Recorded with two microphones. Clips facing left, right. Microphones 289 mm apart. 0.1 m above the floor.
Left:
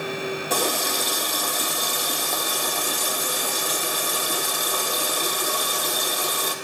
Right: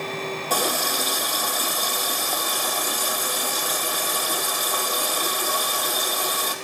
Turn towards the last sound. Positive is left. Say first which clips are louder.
# left 1 dB
turn(degrees=10)  # may be behind; listen again after turning